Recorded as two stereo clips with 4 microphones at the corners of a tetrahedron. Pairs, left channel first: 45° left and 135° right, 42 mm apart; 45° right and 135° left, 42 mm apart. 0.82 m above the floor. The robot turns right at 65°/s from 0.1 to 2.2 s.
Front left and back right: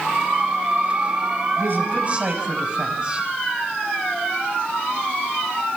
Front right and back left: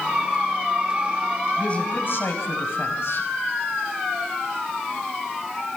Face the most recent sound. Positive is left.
turn(degrees=-70)